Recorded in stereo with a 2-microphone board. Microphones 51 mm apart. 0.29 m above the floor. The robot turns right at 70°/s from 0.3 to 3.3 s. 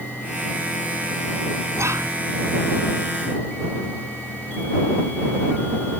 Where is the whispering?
60° right (ahead or behind); by 2.1 s 65° right (ahead or behind).